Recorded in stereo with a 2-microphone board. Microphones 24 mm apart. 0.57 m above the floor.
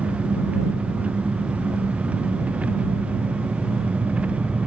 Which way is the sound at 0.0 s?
85° right.